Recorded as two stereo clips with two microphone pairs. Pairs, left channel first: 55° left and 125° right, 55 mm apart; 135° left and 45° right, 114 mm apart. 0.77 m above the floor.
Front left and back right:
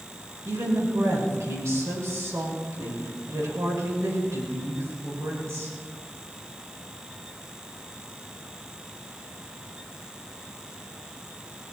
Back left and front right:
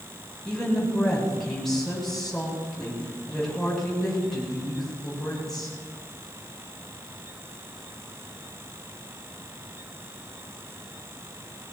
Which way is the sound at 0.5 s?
135° right.